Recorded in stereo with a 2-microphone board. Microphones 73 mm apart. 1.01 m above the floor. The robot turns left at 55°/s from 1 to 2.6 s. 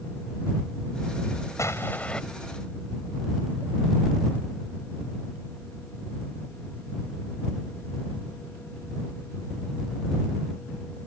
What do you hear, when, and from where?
1.6 s an explosion: 45° left; by 2.2 s 10° left